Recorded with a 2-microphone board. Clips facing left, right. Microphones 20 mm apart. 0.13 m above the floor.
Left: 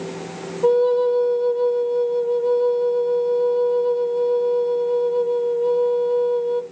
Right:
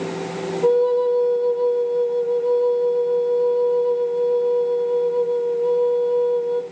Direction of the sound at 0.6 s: 15° left (ahead or behind).